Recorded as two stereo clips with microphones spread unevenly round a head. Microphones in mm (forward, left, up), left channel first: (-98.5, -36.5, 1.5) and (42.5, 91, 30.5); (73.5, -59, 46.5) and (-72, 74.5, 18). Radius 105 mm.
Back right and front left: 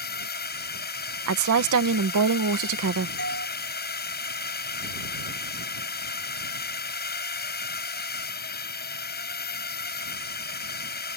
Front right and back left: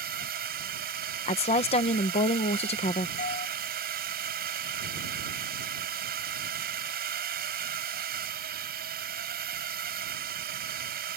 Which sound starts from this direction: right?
A doorbell, at 3.2 s.